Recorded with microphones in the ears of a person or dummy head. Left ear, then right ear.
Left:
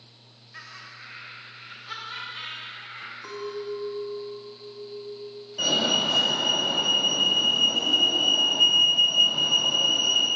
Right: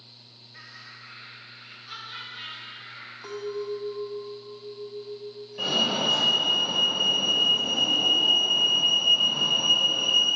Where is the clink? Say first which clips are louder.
Right 2 dB; 20° right (ahead or behind), 1.2 m.